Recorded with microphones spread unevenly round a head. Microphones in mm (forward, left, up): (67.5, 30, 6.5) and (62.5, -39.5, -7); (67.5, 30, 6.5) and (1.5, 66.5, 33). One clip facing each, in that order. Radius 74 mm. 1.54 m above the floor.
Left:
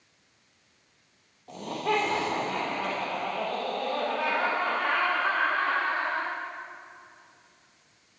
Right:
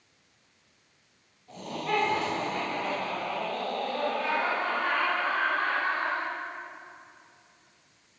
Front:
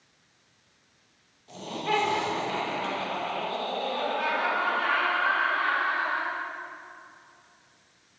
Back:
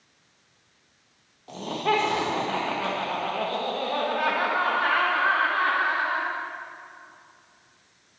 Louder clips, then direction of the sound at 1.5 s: Left 2 dB, back 4 dB; 125° left.